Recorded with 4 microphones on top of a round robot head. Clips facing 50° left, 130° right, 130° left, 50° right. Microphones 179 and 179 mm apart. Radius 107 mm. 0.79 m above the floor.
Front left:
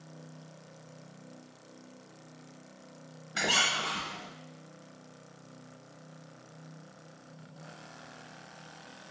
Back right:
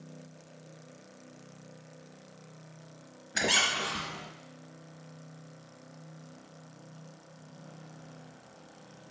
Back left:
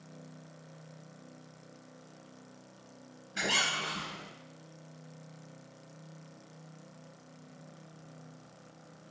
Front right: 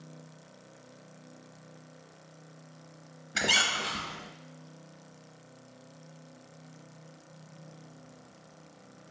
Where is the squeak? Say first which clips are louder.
Back right 1 dB, front right 2 dB; 60° right, 0.9 m.